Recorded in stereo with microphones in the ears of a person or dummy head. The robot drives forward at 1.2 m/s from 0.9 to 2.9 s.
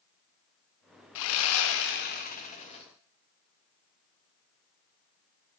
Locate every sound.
1.1 s sawing: 70° left (ahead or behind), 1.2 m; by 2.8 s 30° left (ahead or behind), 2 m